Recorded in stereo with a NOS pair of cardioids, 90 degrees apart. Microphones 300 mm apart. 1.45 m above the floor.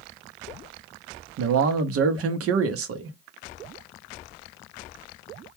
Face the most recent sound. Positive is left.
turn(degrees=-55)